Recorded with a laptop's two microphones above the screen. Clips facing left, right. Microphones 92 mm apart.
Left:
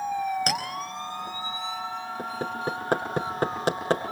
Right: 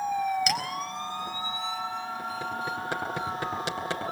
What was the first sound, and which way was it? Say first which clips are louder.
A clink: left 1 dB; 40° left (ahead or behind).